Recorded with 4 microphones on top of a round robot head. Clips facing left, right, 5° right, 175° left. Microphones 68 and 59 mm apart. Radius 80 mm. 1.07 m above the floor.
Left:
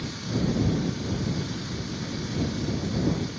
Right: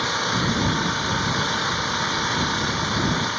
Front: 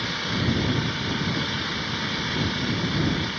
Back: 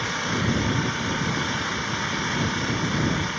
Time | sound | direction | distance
0.0 | an engine running | 105° right | ?